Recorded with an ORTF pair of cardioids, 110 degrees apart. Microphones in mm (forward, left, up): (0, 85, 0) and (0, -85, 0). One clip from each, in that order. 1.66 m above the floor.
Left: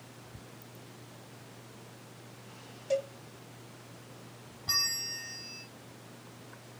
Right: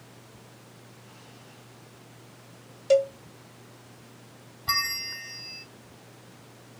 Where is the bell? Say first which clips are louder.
Right 3 dB; 30° right, 0.9 m.